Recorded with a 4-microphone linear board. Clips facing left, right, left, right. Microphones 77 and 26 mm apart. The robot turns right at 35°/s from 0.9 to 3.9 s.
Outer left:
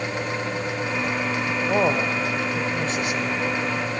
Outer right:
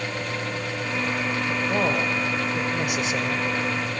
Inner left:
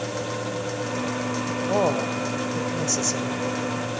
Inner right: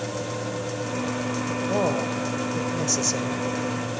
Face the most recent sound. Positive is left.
turn(degrees=-130)